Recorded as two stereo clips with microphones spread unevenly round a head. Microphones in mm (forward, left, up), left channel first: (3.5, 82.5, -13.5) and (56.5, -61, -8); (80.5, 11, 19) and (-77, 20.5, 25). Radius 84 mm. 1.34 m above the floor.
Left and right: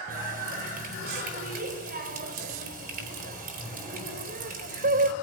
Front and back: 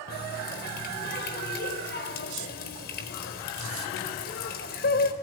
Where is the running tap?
40° right, 4 m.